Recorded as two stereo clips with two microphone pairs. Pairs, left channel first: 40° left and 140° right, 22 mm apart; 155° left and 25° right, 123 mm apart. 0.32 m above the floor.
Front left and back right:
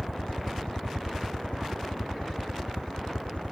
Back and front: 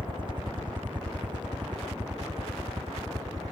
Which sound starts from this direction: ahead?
A helicopter, at 0.0 s.